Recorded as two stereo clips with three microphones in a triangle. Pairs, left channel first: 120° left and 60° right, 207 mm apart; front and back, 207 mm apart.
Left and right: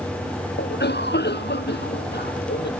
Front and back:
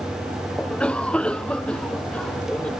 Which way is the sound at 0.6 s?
85° left.